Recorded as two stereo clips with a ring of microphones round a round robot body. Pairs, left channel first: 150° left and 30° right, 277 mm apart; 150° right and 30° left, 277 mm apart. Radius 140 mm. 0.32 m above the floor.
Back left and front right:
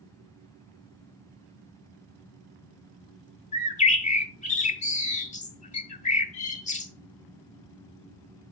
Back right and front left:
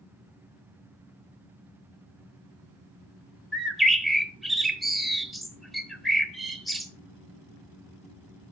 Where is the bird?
120° left, 1.0 m.